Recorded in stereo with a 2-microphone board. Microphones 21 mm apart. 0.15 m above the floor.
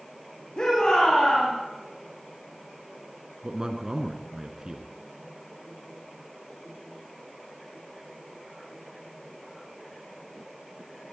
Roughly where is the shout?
Left.